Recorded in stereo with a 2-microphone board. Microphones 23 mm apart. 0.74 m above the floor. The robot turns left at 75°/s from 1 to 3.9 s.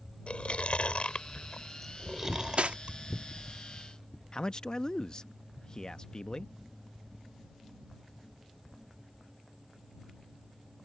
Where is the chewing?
65° left (ahead or behind); by 3.0 s 70° right (ahead or behind).